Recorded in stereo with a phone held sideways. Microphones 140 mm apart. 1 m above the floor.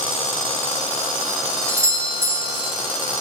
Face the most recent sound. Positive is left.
turn(degrees=-20)  # may be behind; listen again after turning